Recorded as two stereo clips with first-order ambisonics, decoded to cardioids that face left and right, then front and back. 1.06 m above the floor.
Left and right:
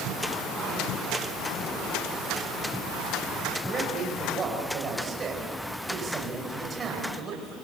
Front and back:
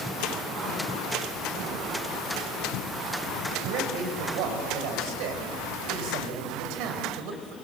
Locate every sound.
3.6 s a man speaking: 160° right, 5 m